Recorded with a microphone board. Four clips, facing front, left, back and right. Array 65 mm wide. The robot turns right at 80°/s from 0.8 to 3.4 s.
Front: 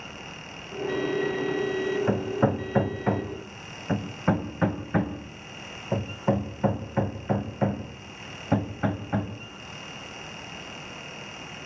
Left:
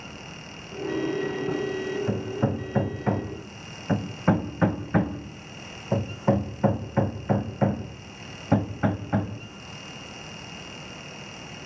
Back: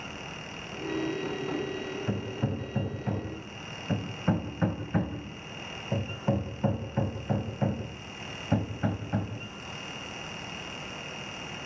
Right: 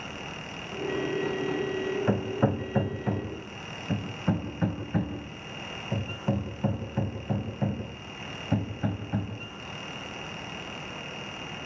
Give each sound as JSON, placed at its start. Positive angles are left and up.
{"t": 2.1, "sound": "hammering", "azimuth_deg": -45, "distance_m": 1.6}